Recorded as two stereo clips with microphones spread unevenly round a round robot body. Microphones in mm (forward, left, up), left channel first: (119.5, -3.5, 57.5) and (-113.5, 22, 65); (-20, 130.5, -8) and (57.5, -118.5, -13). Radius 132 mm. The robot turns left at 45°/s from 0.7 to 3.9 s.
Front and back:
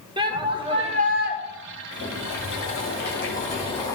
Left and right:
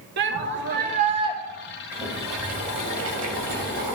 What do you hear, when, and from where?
0.2 s a shout: 115° right, 1.5 m; by 1.4 s 145° right, 1.5 m
1.9 s boiling: 10° left, 2.5 m; by 4.0 s 80° right, 2.5 m